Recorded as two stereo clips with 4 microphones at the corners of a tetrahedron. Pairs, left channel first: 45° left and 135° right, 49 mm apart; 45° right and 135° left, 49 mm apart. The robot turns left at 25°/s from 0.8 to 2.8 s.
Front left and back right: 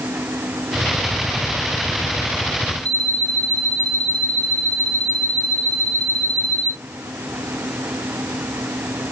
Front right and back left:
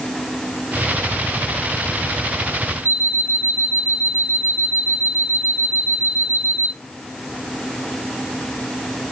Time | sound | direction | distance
2.9 | an alarm clock | 20° right | 1.2 m